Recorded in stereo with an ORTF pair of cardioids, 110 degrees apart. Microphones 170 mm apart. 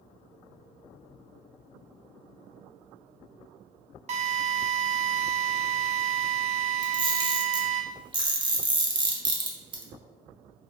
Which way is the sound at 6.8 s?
30° right.